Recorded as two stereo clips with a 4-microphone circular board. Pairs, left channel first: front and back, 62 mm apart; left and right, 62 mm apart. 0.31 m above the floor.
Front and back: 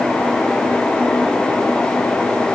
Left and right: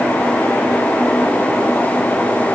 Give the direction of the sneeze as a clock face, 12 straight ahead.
No sneeze in this recording.